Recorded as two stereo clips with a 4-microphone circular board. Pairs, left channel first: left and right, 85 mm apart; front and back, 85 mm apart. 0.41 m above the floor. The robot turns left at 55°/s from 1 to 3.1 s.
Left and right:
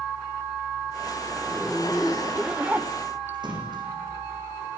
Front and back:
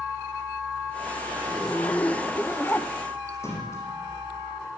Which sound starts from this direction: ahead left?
A zipper, at 1.4 s.